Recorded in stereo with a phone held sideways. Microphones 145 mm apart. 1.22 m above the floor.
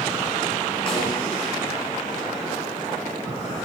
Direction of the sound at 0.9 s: 40° left (ahead or behind).